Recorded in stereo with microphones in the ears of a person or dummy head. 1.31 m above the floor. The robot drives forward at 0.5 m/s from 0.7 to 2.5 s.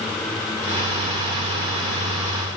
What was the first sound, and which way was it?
Only background noise.